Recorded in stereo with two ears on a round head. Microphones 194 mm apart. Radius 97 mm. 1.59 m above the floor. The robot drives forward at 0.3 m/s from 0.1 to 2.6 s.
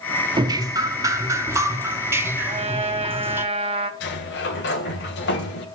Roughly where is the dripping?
Centre.